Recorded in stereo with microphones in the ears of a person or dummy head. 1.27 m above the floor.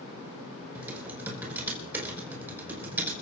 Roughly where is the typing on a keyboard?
Centre.